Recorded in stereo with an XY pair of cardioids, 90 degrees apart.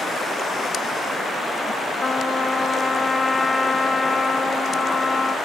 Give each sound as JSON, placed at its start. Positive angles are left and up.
{"t": 2.0, "sound": "a trumpet", "azimuth_deg": 30, "distance_m": 1.0}